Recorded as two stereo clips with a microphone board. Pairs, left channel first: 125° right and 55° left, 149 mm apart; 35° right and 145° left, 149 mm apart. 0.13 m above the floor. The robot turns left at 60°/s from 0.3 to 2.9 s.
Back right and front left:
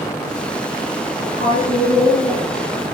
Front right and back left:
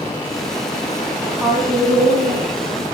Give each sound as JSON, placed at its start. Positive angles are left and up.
{"t": 1.2, "sound": "a woman speaking", "azimuth_deg": -125, "distance_m": 3.0}